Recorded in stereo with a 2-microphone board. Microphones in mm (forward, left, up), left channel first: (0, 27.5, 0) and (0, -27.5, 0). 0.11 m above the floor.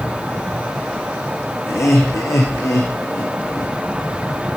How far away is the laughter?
About 6 m.